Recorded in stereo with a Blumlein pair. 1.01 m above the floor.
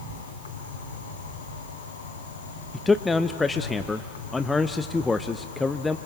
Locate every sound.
0.0 s an insect: 65° left, 3.5 m
2.7 s a man speaking: 10° left, 0.6 m